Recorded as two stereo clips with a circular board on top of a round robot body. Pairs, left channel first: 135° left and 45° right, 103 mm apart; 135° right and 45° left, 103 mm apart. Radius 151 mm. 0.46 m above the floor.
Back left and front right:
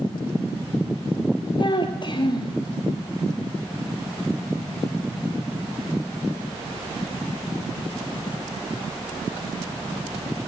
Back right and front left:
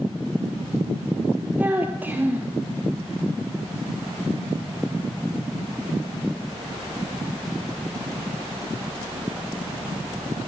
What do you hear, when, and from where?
1.6 s a child speaking: 115° left, 1.2 m